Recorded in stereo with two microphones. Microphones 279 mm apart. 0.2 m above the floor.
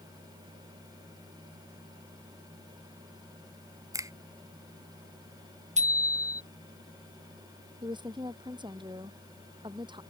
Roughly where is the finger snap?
Centre.